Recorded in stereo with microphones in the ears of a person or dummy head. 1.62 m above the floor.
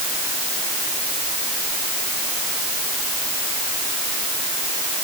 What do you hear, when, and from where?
Only background noise.